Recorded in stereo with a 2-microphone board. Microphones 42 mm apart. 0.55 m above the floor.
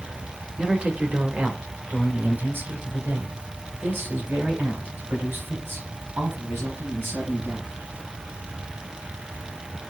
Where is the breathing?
I don't hear breathing.